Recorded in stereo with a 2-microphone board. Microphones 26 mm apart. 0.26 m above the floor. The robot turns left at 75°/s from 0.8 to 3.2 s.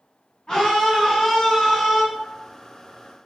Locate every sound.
0.5 s a scream: 60° left, 1.5 m; by 2.0 s 30° right, 1.5 m